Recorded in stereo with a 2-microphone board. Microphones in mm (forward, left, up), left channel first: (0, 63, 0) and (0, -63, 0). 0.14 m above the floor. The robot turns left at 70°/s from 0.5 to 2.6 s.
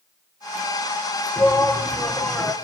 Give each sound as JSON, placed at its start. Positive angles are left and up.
{"t": 1.4, "sound": "a shout", "side_deg": 20, "distance_m": 1.1}